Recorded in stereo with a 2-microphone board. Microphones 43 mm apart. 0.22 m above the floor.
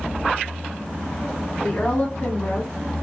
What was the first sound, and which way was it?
A woman speaking, 40° left (ahead or behind).